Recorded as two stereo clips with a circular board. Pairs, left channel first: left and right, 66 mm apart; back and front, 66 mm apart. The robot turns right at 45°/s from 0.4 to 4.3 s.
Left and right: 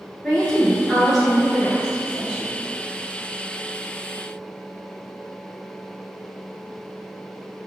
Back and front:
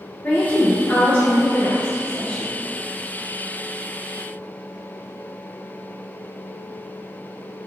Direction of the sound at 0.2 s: 160° left.